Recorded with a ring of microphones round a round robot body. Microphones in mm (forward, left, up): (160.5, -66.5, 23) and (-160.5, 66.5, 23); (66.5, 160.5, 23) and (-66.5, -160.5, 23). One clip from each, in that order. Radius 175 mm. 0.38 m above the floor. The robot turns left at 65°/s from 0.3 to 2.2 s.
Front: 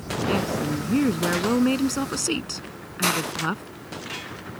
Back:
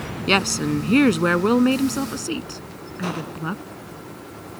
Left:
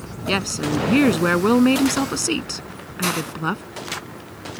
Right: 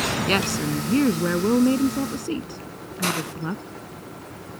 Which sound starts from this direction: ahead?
A hiss, at 3.0 s.